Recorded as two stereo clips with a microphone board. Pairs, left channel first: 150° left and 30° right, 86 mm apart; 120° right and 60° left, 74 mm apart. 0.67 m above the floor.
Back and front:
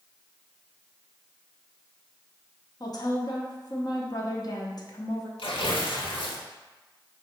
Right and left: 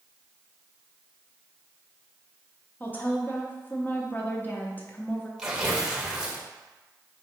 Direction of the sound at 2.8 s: Straight behind.